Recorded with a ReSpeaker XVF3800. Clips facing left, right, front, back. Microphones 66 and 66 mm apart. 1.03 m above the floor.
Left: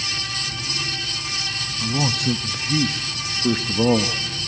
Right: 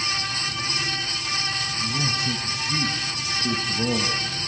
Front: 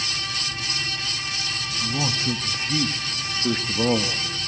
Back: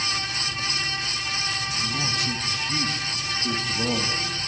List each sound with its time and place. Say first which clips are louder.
1.8 s a man speaking: left 6 dB, front 5 dB; 60° left, 1.1 m